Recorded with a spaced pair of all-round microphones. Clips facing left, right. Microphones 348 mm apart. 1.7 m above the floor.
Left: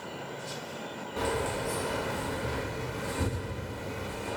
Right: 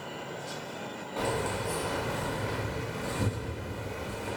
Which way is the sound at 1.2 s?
20° left (ahead or behind).